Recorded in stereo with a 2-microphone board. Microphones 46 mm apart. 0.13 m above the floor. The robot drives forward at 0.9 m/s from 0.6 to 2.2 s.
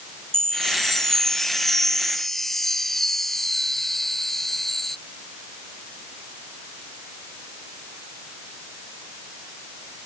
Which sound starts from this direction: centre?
A chime, at 0.3 s.